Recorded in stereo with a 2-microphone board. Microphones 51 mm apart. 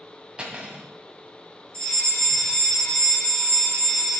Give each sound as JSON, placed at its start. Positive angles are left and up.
{"t": 0.4, "sound": "cutlery clinking", "side_deg": -20, "distance_m": 1.8}
{"t": 1.7, "sound": "a fire alarm", "side_deg": 20, "distance_m": 4.0}